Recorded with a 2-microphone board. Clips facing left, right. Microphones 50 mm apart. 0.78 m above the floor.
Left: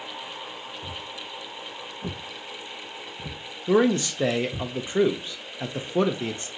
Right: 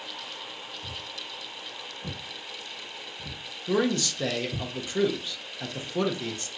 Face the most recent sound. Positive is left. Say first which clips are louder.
# left 5 dB
turn(degrees=25)  # may be behind; listen again after turning